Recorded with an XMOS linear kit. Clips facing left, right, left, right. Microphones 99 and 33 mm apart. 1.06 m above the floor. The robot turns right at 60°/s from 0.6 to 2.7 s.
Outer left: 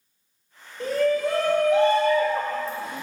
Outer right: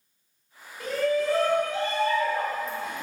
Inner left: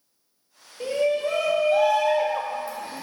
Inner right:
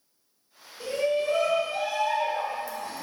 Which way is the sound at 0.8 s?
30° left.